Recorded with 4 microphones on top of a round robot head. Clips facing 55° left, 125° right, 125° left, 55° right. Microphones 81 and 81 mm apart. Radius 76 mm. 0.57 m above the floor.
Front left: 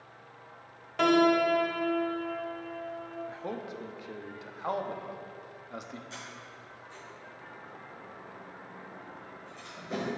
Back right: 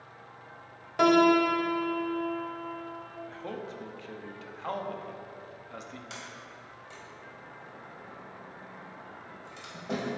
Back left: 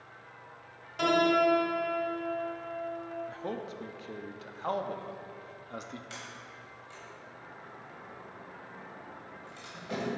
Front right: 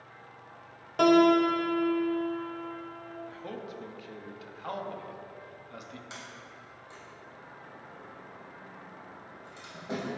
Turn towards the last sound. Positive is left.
turn(degrees=-125)